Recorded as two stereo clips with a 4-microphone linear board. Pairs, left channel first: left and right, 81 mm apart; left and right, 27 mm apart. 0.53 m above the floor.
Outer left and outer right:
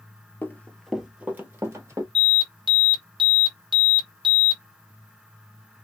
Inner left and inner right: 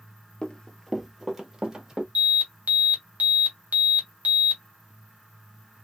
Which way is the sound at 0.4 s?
30° left (ahead or behind).